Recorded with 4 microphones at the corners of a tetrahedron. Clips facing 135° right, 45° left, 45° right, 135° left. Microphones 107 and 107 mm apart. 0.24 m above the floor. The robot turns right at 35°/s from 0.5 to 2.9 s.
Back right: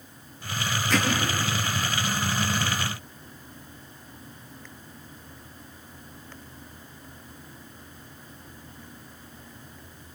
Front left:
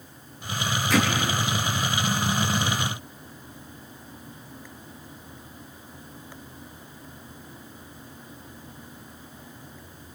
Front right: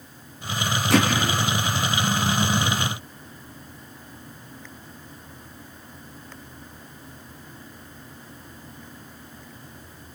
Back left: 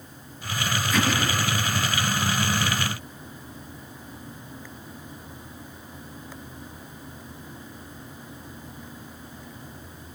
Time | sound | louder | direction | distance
0.9 | hammering | front left 3 dB, front right 6 dB | 45° right | 6.5 m